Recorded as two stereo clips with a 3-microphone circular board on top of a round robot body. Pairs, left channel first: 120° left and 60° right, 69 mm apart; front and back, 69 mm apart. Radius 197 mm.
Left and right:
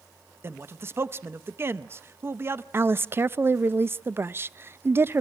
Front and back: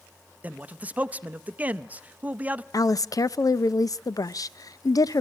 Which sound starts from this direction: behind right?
A man speaking, at 0.4 s.